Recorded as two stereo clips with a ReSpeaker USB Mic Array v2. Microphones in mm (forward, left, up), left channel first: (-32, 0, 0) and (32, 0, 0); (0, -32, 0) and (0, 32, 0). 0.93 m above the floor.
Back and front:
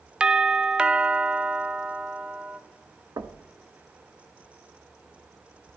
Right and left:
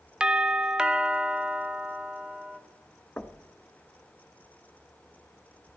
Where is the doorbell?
45° left, 0.6 m.